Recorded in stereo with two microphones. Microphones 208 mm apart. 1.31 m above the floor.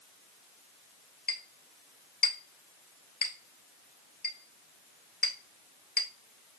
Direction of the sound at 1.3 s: 55° left (ahead or behind).